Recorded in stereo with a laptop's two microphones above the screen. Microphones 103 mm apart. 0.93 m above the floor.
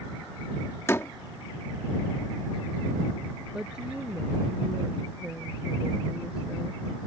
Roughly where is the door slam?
Left.